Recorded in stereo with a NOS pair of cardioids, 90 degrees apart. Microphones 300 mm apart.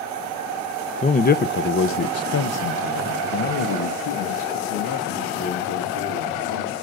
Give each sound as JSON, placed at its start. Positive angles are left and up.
{"t": 1.0, "sound": "a man speaking", "azimuth_deg": 20, "distance_m": 0.8}